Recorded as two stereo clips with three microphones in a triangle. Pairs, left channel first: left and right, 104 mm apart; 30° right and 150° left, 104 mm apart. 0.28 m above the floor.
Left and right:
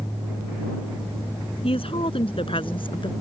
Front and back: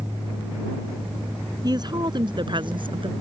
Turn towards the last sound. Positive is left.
turn(degrees=120)